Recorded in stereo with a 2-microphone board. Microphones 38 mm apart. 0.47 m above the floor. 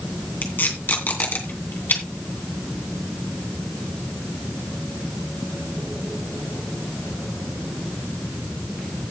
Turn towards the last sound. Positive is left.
turn(degrees=50)  # may be behind; listen again after turning